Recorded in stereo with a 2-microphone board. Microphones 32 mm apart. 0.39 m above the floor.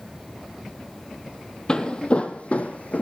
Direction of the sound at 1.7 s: 30° left (ahead or behind).